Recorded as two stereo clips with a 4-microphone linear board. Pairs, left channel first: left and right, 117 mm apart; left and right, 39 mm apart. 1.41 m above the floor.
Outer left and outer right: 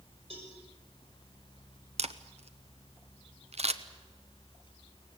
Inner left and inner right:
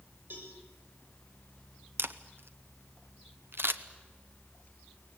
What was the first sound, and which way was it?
A cowbell, 60° right (ahead or behind).